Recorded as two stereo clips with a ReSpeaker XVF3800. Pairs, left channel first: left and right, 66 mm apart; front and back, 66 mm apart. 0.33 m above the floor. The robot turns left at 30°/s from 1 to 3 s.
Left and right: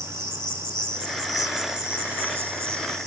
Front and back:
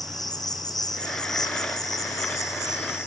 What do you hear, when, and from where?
0.0 s an insect: 15° left, 5.5 m; by 3.1 s 45° right, 5.5 m